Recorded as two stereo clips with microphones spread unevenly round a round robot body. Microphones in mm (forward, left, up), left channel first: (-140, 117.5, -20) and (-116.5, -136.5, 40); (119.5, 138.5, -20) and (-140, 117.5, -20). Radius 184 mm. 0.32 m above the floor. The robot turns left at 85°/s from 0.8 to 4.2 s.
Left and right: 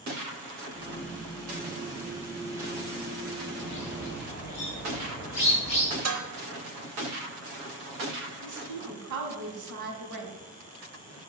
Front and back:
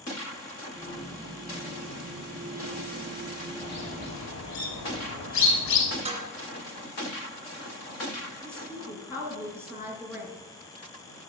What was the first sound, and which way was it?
A bird, 60° left.